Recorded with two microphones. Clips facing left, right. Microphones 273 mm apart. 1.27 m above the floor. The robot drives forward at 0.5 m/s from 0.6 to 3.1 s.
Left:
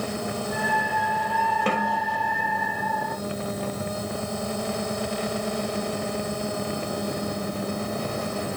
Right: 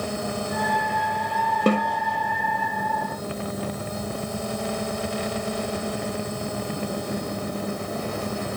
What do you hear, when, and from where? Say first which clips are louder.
1.7 s a snare drum: right 7 dB; 45° right (ahead or behind), 1.8 m; by 2.0 s 50° right (ahead or behind), 1.6 m